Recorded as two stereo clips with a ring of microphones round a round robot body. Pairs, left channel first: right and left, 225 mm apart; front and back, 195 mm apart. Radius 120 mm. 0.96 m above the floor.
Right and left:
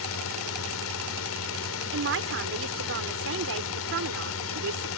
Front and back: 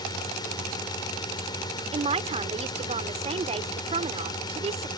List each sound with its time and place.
0.0 s a drone: 70° right
1.9 s a man speaking: 120° left